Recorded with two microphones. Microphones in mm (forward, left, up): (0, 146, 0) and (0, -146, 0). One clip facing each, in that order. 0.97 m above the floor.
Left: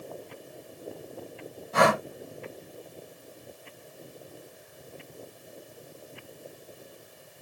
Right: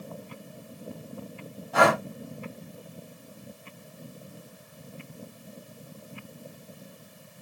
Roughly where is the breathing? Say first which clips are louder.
Right 1 dB; left.